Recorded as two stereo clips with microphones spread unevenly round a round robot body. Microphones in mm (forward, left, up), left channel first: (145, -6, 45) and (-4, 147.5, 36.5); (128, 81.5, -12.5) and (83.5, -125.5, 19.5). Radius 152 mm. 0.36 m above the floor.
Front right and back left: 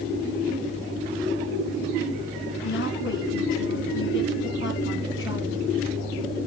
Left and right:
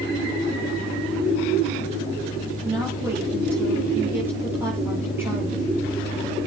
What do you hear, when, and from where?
2.6 s a woman speaking: 20° right, 9.5 m